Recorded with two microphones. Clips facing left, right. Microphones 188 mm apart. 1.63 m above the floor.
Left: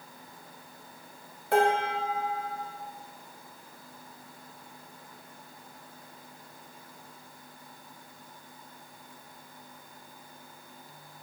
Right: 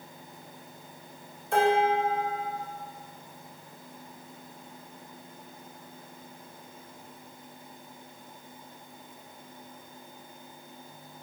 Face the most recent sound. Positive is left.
turn(degrees=65)  # may be behind; listen again after turning